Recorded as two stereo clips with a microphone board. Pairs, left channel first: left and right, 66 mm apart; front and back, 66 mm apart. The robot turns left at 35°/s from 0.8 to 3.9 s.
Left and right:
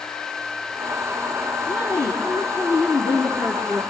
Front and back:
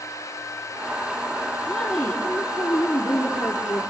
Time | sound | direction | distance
1.6 | a woman speaking | 85° left | 4 m